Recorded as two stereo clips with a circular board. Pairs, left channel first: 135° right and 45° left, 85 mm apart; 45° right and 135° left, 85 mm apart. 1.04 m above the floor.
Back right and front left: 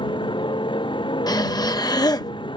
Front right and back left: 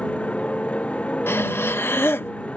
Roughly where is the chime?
I don't hear a chime.